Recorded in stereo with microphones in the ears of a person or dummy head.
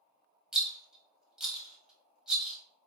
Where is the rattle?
5° left (ahead or behind), 1.0 m.